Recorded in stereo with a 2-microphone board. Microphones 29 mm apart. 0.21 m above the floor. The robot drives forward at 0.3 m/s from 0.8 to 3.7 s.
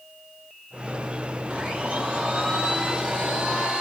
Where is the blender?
35° right (ahead or behind), 1.2 m; by 3.8 s 25° right (ahead or behind), 1.6 m.